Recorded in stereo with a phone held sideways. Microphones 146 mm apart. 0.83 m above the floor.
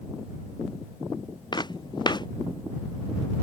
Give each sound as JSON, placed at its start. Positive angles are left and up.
{"t": 1.5, "sound": "footsteps", "side_deg": 30}